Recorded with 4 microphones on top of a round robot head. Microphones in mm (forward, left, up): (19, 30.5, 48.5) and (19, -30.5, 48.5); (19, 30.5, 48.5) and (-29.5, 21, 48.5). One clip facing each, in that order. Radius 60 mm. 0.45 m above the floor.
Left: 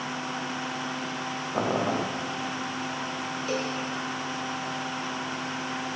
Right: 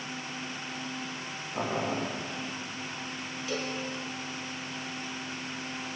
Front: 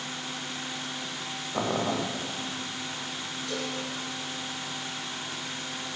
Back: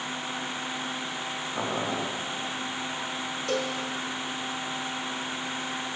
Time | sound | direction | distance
1.5 | boiling | 80° left | 3.5 m
3.5 | a cowbell | 145° left | 4 m